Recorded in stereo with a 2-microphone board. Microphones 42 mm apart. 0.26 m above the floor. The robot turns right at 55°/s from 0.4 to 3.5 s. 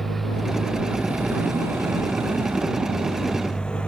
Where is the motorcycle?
5° left (ahead or behind); by 3.9 s 25° left (ahead or behind).